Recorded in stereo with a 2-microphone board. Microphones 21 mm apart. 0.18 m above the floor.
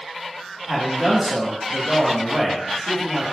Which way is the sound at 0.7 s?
10° right (ahead or behind).